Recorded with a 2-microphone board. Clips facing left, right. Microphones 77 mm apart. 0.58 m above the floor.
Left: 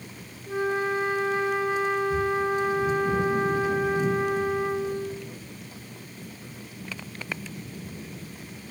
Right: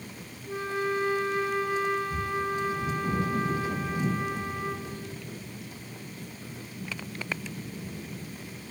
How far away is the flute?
About 1.6 m.